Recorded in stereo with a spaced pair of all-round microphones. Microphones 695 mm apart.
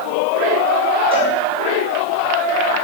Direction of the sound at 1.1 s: 10° right (ahead or behind).